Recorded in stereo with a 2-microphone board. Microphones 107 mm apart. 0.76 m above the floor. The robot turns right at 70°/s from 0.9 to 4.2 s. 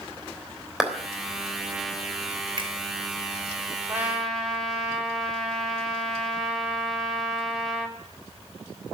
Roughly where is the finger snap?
Right.